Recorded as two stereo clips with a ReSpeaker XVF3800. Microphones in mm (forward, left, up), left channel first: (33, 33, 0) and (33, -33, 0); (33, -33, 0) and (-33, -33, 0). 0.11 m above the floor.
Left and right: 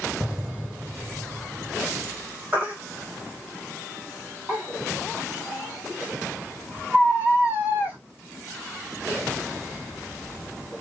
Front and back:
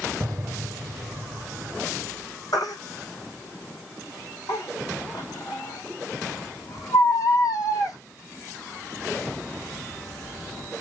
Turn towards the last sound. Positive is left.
turn(degrees=-25)